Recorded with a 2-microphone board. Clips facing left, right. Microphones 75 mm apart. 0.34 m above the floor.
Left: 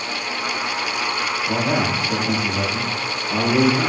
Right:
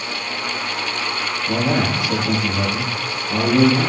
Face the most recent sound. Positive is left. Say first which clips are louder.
# right 2 dB
turn(degrees=-15)  # may be behind; listen again after turning